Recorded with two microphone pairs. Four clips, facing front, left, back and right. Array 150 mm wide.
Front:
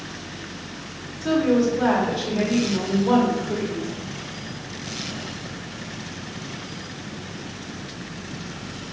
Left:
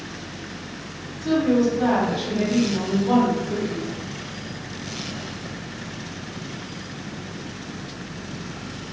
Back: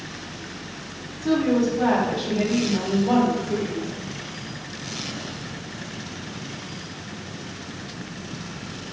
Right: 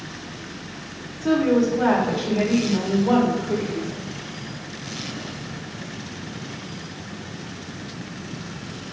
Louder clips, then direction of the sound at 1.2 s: Right 1 dB, front 1 dB; 45° right.